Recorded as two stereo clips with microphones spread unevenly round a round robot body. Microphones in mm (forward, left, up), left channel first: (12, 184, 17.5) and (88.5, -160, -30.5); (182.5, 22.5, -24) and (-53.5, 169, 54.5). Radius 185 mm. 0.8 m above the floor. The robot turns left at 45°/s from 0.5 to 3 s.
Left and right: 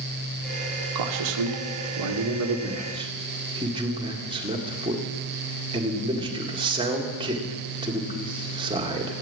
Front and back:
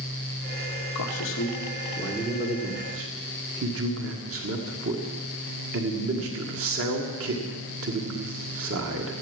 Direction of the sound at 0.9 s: 60° right.